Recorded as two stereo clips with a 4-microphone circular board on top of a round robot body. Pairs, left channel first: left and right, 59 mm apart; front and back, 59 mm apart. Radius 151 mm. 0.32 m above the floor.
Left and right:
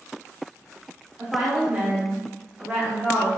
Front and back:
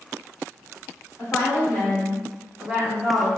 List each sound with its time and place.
1.2 s a woman speaking: 20° right, 1.4 m; by 3.3 s 135° right, 1.2 m